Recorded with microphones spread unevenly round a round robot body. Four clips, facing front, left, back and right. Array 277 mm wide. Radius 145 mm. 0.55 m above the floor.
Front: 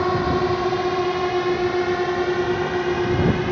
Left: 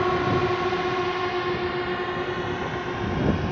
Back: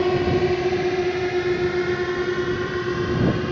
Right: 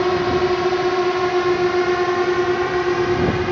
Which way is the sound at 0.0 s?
125° right.